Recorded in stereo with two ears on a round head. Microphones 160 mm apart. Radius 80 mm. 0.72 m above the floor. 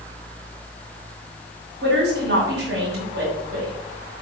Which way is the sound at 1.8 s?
70° right (ahead or behind).